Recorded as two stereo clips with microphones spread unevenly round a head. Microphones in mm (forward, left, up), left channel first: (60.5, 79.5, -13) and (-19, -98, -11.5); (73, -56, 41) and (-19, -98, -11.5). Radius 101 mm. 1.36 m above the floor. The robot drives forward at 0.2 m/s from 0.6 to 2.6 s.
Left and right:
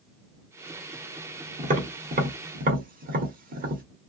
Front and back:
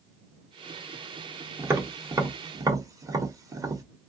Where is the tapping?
70° right, 1.4 m; by 3.8 s 80° right, 1.3 m.